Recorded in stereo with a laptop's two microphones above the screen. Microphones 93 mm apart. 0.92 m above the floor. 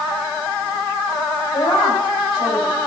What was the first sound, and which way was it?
A woman speaking, 80° left.